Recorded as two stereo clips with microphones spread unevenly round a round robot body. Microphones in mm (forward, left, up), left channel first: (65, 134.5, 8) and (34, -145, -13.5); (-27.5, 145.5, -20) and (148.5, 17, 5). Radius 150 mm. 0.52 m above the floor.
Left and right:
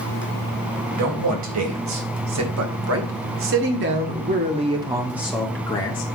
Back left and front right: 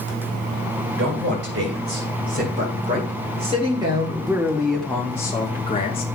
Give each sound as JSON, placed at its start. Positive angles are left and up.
{"t": 1.0, "sound": "a man speaking", "azimuth_deg": -90, "distance_m": 3.0}